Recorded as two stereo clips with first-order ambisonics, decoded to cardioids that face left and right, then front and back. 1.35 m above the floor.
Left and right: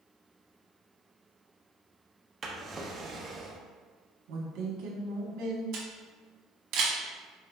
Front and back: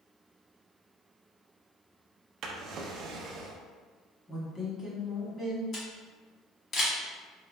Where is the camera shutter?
60° right, 1.2 m.